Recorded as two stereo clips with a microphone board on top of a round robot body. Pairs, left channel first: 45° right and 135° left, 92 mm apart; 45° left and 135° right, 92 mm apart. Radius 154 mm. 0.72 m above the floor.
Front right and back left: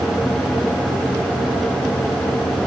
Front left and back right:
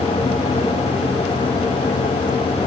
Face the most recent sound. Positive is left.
No sound to turn to.